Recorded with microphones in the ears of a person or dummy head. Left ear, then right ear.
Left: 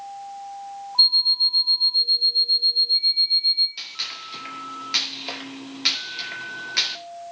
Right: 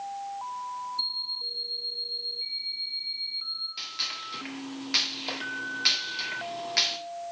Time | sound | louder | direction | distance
1.0 | an alarm clock | left 16 dB | 50° left (ahead or behind) | 1.5 m
3.8 | a gunshot | left 2 dB | 10° left (ahead or behind) | 1.8 m